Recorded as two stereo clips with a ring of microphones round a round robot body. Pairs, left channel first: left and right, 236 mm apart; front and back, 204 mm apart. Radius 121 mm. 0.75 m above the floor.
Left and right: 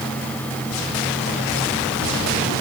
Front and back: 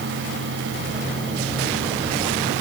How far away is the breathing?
I don't hear breathing.